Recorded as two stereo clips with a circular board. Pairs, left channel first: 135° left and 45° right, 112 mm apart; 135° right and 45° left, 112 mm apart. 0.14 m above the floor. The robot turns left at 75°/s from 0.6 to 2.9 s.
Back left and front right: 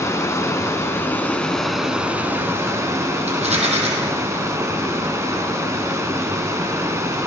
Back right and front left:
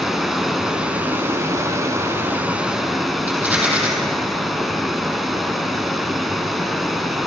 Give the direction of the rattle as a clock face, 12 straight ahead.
1 o'clock.